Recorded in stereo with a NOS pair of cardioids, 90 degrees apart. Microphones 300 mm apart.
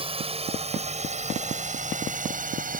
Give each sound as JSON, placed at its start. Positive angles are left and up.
{"t": 0.0, "sound": "a drone", "azimuth_deg": -20}